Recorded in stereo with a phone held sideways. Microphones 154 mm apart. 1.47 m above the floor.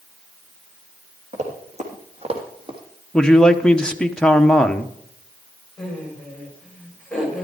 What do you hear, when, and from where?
1.3 s running footsteps: 50° right (ahead or behind), 3 m; by 2.8 s 35° right (ahead or behind), 2.5 m
3.1 s a man speaking: 5° left (ahead or behind), 0.9 m
5.8 s laughter: 5° left (ahead or behind), 5.5 m